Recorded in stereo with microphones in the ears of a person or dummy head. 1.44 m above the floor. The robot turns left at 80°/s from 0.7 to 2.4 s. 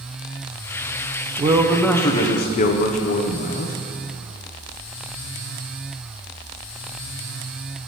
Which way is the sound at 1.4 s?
145° right.